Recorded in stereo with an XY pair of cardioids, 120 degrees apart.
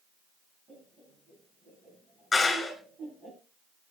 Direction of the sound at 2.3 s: 25° left.